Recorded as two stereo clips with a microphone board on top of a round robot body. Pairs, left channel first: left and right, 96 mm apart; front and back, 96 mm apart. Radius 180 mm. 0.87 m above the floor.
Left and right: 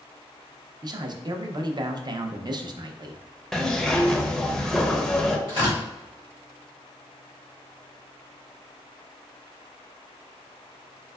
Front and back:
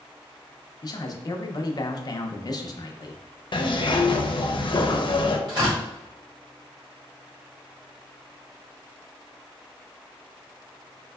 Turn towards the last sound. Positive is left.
turn(degrees=-135)